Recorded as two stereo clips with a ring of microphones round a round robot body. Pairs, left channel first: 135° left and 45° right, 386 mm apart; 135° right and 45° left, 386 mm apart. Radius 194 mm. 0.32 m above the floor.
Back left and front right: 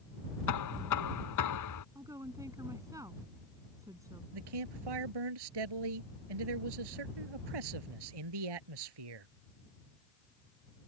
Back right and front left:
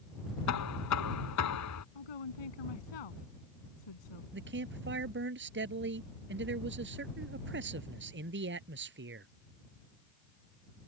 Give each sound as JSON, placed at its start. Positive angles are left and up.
{"t": 0.5, "sound": "knocking", "azimuth_deg": 180}
{"t": 1.9, "sound": "a woman speaking", "azimuth_deg": -125}
{"t": 4.3, "sound": "a man speaking", "azimuth_deg": -20}